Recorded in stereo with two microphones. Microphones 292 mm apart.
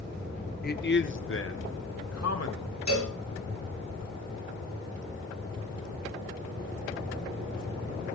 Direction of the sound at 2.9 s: 70° right (ahead or behind).